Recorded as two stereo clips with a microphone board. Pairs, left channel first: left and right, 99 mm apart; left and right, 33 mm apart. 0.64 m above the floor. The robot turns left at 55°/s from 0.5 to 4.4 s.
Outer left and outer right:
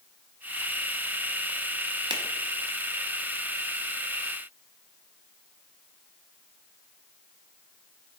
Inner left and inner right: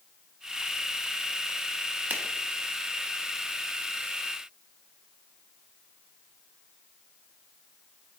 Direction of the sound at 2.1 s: 50° right (ahead or behind).